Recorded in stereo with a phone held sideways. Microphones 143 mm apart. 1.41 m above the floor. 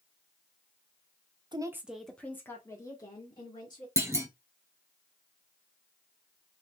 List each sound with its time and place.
1.5 s a woman speaking: 30° right (ahead or behind), 0.6 m; by 3.9 s 30° left (ahead or behind), 2.5 m
4.0 s a clunk: 20° right (ahead or behind), 0.7 m